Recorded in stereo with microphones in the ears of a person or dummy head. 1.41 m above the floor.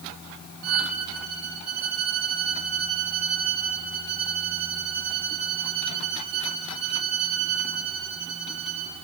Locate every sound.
0.6 s a violin: 50° right (ahead or behind), 1.6 m